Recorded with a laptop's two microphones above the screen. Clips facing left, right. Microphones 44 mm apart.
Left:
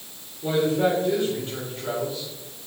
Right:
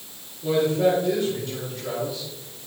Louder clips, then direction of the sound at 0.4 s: Right 1 dB; 35° left (ahead or behind).